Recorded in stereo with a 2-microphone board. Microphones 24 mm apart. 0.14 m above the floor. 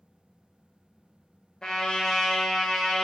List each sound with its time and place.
1.6 s a trumpet: 25° left (ahead or behind), 0.7 m